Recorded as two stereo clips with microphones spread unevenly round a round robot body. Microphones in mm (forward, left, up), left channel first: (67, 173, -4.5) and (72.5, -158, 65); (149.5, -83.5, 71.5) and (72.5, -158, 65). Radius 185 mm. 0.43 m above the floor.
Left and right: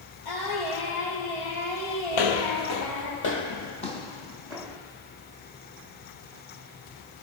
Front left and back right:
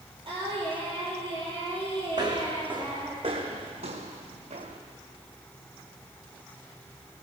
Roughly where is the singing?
Behind left.